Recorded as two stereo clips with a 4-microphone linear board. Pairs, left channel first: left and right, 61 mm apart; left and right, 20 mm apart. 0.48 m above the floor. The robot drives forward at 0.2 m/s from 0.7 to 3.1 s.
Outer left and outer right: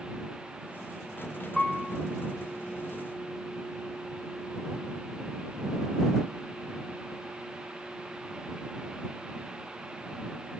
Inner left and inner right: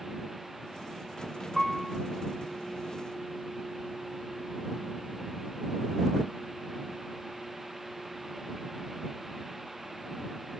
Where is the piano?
5° left (ahead or behind), 0.5 m.